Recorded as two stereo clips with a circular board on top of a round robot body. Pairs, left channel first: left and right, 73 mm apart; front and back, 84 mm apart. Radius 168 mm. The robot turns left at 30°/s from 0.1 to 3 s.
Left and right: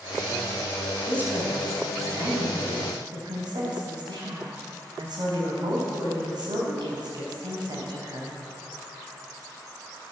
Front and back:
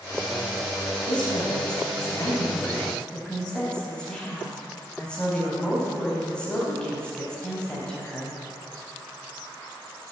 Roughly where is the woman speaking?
Ahead.